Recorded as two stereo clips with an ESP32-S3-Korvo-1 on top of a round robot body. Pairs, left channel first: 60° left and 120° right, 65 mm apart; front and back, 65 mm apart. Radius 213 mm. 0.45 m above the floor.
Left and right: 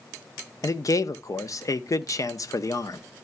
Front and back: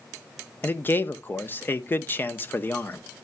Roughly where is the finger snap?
I don't hear a finger snap.